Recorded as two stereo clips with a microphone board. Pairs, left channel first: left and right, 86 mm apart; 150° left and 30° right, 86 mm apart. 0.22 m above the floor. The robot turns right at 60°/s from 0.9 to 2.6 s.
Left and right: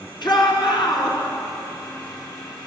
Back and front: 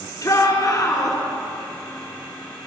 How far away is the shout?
About 3.5 m.